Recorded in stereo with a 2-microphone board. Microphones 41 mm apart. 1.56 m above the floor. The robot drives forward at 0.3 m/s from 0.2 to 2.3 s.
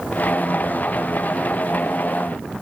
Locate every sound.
Only background noise.